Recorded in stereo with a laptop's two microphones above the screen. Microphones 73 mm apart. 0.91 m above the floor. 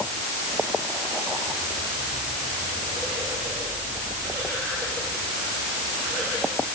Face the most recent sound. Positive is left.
No sound to turn to.